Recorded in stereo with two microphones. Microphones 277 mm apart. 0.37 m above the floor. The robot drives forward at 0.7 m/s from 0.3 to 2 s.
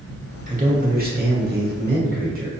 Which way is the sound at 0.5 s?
25° right (ahead or behind).